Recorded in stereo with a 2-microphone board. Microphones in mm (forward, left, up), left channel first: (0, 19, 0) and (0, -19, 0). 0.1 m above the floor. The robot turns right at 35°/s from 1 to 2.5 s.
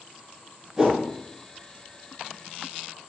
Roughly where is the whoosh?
Centre.